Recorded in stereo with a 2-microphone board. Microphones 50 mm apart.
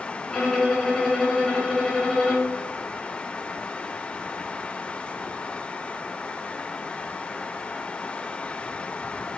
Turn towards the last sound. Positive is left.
turn(degrees=0)  # may be behind; listen again after turning